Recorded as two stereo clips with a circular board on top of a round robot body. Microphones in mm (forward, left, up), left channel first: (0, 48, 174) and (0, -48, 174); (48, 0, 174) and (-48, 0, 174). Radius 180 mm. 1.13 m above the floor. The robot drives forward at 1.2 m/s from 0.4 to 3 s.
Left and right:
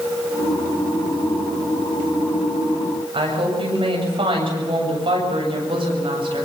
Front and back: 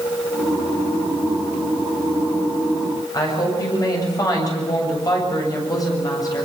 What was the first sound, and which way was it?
A woman speaking, 55° right.